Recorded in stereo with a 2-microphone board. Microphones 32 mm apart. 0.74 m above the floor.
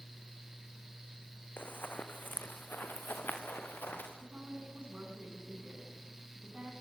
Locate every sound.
1.6 s running footsteps: 70° left (ahead or behind), 2.5 m; by 4.1 s 75° left (ahead or behind), 5.5 m
4.2 s a woman speaking: 40° right (ahead or behind), 7.5 m